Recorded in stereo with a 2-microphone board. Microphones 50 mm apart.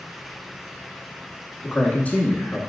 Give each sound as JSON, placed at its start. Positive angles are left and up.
{"t": 1.6, "sound": "a man speaking", "side_deg": 25, "distance_m": 1.2}